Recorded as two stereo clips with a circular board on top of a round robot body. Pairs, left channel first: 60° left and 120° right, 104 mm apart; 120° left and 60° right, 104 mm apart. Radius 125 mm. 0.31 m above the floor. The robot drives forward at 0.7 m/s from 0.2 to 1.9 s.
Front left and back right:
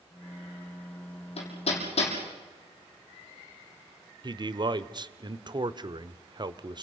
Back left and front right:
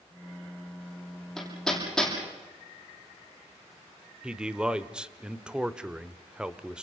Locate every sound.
1.4 s hammering: 35° left, 7 m
4.2 s a man speaking: 140° right, 1.3 m